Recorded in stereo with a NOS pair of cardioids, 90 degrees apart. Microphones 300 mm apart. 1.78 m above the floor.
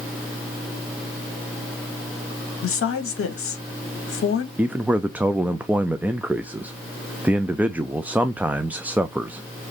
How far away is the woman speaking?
About 2.5 m.